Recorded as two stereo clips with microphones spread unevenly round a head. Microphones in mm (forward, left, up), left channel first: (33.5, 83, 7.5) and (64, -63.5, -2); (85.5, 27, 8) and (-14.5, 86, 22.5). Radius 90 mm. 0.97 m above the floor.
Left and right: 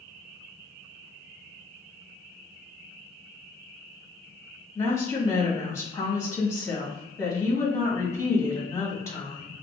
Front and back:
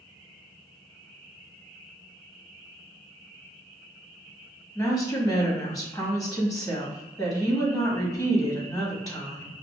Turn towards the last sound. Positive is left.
turn(degrees=30)